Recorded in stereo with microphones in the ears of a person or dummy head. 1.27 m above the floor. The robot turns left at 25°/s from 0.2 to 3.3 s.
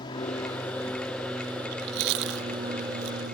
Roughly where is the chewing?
Right.